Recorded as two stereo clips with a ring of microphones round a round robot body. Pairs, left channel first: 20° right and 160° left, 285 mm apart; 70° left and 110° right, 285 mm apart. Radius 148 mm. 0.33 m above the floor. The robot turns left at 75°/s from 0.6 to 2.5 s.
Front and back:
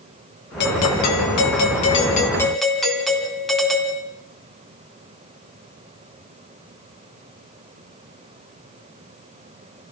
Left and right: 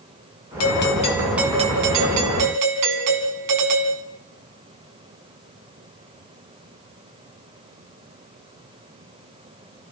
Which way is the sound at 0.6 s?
30° left.